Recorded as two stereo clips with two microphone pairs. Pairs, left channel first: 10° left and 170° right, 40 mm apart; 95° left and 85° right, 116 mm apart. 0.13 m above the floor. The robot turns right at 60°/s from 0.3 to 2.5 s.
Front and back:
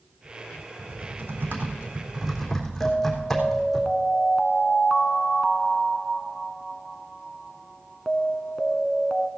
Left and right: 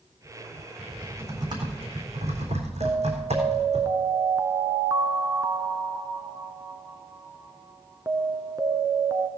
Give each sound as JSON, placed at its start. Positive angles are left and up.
{"t": 0.8, "sound": "typing on a keyboard", "azimuth_deg": 180, "distance_m": 3.5}
{"t": 2.8, "sound": "an alarm", "azimuth_deg": -90, "distance_m": 0.9}